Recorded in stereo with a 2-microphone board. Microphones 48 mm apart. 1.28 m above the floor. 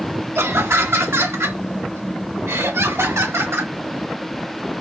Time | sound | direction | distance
0.3 | laughter | 65° right (ahead or behind) | 1.5 m